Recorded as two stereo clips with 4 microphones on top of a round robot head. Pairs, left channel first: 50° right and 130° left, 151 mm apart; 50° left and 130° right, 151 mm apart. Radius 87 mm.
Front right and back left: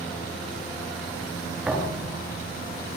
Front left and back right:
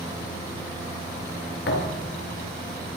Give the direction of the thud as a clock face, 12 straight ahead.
10 o'clock.